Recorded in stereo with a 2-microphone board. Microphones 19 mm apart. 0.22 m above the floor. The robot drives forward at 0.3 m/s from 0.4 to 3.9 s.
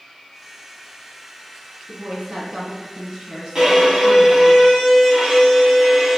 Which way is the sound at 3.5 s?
35° right (ahead or behind).